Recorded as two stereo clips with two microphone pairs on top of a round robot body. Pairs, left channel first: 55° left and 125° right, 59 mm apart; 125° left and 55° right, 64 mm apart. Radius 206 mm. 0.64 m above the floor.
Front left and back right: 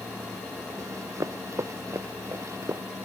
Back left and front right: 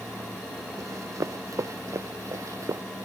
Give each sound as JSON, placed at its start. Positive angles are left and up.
{"t": 0.8, "sound": "running footsteps", "azimuth_deg": -95}